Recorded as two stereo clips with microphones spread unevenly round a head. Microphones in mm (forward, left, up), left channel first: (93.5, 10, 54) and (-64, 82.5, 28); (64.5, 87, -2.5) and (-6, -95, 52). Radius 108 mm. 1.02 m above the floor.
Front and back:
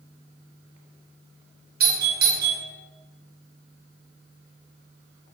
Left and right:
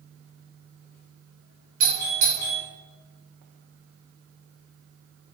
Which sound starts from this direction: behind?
A doorbell, at 1.8 s.